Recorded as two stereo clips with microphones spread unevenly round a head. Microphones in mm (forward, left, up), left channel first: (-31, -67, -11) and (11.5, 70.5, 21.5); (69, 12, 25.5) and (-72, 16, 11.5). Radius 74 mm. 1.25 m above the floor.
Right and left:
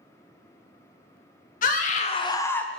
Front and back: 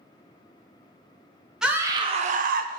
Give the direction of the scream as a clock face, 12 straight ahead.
3 o'clock.